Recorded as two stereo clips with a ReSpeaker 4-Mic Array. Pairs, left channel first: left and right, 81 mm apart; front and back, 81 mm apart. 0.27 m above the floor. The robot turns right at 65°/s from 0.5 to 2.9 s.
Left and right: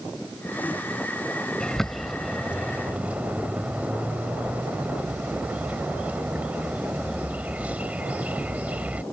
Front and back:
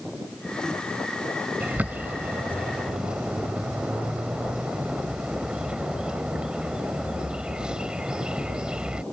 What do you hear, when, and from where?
1.6 s a bird: 155° left; by 9.0 s 125° right